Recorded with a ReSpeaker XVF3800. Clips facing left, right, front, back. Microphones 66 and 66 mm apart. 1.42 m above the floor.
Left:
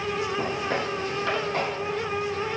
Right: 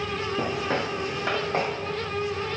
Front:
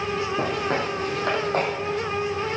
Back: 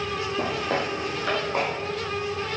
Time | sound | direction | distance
0.4 | footsteps | 25° right | 4 m